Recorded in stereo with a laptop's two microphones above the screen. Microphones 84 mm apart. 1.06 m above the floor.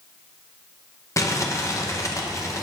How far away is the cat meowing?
I don't hear a cat meowing.